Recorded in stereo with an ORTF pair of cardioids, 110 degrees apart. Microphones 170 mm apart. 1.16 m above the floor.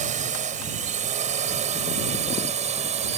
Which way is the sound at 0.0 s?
50° right.